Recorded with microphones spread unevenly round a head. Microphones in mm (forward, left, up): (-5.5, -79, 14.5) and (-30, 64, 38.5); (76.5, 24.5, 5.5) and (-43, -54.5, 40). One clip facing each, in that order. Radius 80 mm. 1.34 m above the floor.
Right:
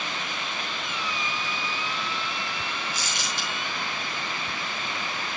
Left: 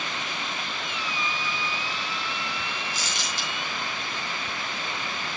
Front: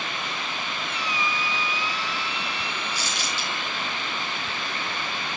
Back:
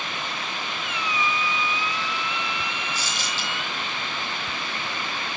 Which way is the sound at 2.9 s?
115° left.